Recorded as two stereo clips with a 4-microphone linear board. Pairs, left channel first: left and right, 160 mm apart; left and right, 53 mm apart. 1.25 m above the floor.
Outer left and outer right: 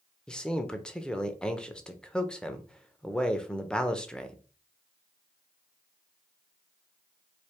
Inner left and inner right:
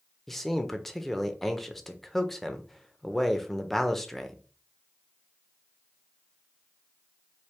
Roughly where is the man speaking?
Centre.